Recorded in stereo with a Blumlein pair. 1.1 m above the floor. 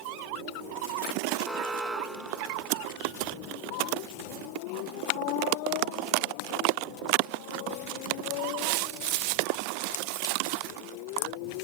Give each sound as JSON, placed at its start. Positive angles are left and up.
{"t": 1.4, "sound": "an alarm", "azimuth_deg": -5}